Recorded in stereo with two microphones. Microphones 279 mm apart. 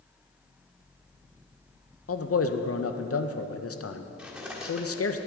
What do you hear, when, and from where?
2.1 s a man speaking: 55° left (ahead or behind), 0.5 m
4.2 s cutlery clinking: 5° right (ahead or behind), 1.1 m